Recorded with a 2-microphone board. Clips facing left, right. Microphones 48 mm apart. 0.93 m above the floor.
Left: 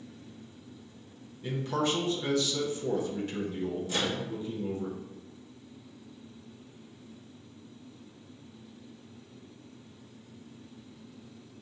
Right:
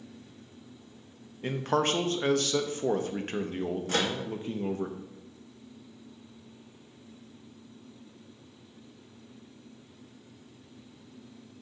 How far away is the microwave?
About 0.9 m.